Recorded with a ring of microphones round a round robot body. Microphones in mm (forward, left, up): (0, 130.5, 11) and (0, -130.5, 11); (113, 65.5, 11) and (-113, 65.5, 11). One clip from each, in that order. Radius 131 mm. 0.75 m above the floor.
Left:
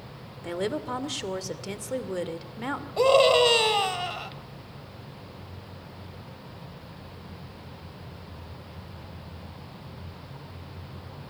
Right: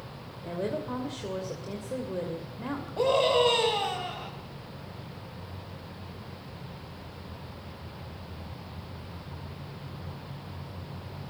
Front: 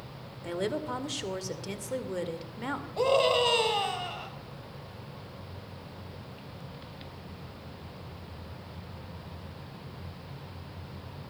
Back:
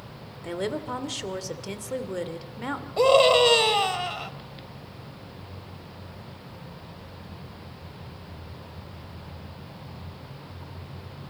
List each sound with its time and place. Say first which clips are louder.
0.4 s a woman speaking: left 3 dB, back 2 dB; 90° left, 2.5 m
3.0 s a scream: left 5 dB, back 7 dB; 135° left, 3.5 m